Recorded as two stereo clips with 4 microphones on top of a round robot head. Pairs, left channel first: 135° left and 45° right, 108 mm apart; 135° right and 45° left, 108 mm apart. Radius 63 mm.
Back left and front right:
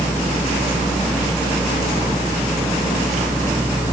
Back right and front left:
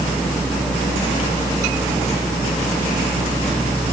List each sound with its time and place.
Only background noise.